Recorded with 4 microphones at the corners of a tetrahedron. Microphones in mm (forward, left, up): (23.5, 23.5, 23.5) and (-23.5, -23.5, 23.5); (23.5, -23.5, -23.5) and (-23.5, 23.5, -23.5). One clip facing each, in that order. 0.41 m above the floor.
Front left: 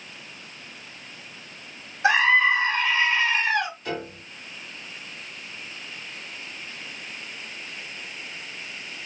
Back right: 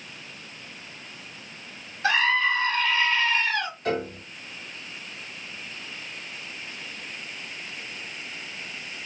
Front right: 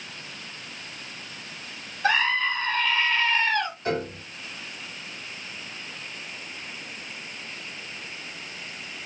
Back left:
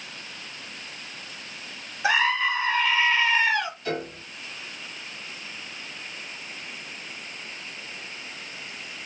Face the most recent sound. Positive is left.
turn(degrees=-100)